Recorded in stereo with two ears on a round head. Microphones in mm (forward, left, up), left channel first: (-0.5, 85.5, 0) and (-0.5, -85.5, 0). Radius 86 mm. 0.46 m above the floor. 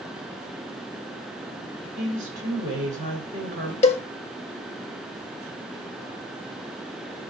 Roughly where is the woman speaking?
Right.